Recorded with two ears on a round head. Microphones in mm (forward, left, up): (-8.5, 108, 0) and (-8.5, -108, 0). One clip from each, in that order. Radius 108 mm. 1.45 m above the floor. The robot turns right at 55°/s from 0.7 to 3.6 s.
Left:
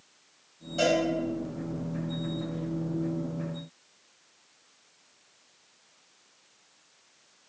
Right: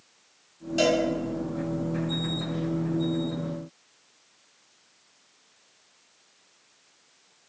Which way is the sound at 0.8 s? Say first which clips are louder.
Right 2 dB; 40° right (ahead or behind).